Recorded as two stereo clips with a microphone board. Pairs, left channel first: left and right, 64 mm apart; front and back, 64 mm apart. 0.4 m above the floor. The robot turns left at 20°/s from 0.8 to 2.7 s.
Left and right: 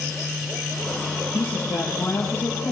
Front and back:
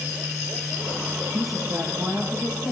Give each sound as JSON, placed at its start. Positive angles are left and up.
{"t": 1.3, "sound": "a woman speaking", "azimuth_deg": 155, "distance_m": 9.5}